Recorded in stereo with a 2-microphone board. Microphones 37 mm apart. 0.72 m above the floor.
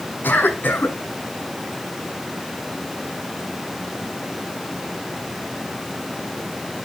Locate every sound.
0.2 s a cough: 65° left (ahead or behind), 7 m